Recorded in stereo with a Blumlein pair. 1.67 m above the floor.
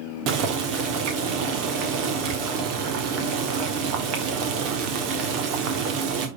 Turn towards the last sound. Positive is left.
turn(degrees=-40)